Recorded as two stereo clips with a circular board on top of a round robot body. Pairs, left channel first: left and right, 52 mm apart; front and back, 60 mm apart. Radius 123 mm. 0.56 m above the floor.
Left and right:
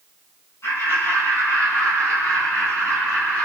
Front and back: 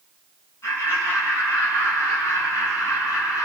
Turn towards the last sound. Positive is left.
turn(degrees=35)